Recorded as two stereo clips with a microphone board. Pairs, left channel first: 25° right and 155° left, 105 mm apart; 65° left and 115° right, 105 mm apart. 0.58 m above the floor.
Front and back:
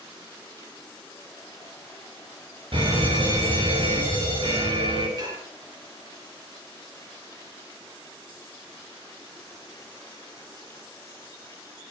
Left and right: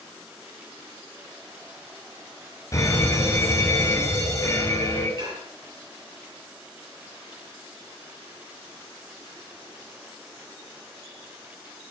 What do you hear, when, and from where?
2.7 s a fire alarm: 125° left, 6.5 m
5.2 s dishes clattering: 155° right, 9.5 m